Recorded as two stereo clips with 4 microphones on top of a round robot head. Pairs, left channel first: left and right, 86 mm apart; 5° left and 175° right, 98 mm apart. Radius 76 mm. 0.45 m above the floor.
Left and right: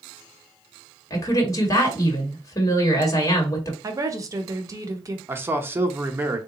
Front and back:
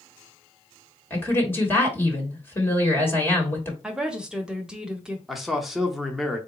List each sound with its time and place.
1.1 s a woman speaking: 65° left, 1.5 m
3.8 s a woman speaking: 95° right, 0.8 m
5.3 s a man speaking: 85° right, 0.7 m